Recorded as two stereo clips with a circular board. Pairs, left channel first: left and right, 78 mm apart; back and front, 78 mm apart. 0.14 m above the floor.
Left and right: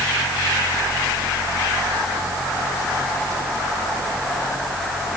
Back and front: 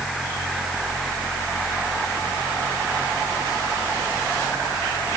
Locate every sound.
Only background noise.